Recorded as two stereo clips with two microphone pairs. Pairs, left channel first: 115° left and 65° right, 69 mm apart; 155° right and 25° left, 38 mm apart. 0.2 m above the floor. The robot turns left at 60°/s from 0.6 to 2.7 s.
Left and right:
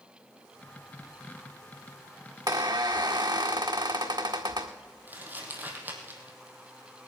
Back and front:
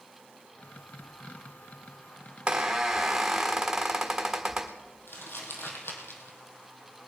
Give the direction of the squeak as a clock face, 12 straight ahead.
1 o'clock.